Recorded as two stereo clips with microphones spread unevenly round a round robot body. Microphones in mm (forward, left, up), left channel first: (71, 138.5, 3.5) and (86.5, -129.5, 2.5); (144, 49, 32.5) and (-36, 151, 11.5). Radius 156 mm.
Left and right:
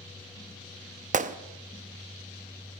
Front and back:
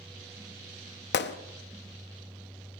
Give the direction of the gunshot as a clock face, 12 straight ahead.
1 o'clock.